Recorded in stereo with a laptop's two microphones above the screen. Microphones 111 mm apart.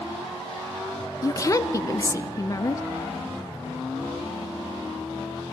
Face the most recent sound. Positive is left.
turn(degrees=30)  # may be behind; listen again after turning